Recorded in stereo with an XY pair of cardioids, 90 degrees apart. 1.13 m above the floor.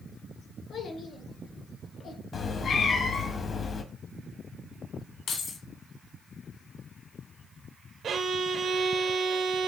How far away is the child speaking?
About 1.9 m.